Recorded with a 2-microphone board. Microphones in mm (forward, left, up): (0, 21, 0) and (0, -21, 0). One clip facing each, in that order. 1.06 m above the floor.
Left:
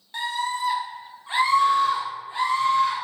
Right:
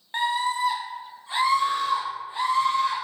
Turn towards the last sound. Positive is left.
turn(degrees=55)  # may be behind; listen again after turning